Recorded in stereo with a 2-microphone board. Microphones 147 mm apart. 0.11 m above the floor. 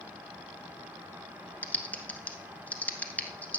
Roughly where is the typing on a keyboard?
Centre.